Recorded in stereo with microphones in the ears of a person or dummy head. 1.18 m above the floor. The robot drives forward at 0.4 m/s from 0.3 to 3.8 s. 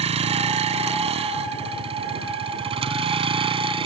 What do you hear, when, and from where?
0.0 s a vehicle: 35° right (ahead or behind); by 3.9 s 30° right (ahead or behind)